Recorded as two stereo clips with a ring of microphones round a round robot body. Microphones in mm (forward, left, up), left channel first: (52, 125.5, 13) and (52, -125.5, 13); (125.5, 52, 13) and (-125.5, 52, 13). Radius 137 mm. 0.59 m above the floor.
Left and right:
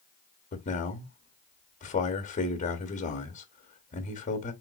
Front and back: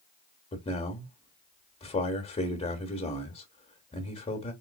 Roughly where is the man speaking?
Ahead left.